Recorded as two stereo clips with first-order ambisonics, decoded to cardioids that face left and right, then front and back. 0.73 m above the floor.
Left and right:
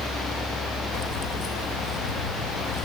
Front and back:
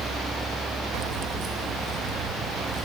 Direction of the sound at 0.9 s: 150° left.